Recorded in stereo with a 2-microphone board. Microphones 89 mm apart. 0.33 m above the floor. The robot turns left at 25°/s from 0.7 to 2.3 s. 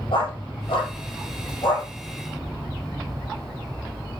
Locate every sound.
0.1 s a dog barking: 85° left, 5.5 m; by 1.9 s 55° left (ahead or behind), 5.5 m